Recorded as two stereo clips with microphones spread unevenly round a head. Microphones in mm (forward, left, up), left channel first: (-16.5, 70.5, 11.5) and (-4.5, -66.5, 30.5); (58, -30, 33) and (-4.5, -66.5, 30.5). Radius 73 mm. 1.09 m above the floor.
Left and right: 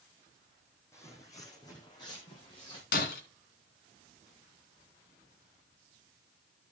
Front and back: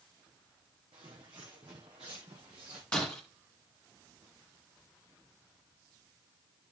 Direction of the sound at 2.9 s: 110° left.